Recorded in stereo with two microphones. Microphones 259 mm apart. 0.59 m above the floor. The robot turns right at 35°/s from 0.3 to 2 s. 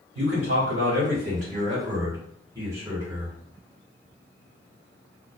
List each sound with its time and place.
0.1 s a man speaking: 75° right, 1.9 m; by 3.4 s 15° right, 1.9 m